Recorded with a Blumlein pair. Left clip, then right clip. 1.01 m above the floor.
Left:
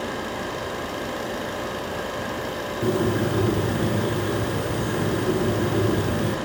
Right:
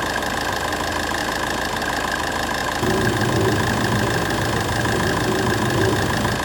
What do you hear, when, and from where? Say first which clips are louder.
0.0 s an engine running: right 7 dB; 45° right, 2.5 m
2.8 s a bird: right 1 dB; 5° right, 3 m